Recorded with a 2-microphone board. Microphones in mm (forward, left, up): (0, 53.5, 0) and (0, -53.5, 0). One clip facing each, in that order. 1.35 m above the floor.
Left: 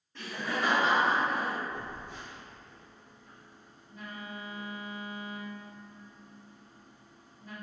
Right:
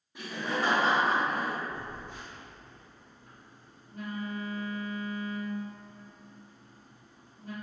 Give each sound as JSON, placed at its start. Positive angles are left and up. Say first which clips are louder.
{"t": 0.1, "sound": "laughter", "louder": "right 1 dB", "side_deg": -10, "distance_m": 0.7}
{"t": 1.7, "sound": "a phone buzzing", "louder": "even", "side_deg": -50, "distance_m": 1.4}